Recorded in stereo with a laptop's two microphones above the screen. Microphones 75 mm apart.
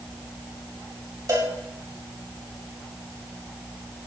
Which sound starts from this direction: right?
A cowbell, at 1.3 s.